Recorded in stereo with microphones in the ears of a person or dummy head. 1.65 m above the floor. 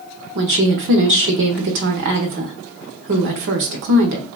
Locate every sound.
0.3 s a woman speaking: 60° right (ahead or behind), 0.7 m